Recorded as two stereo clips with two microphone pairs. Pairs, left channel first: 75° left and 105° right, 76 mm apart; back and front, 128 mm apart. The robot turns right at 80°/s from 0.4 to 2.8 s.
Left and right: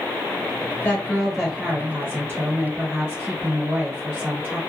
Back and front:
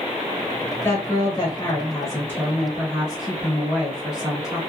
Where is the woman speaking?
125° left, 1.2 m; by 4.6 s 80° right, 1.2 m.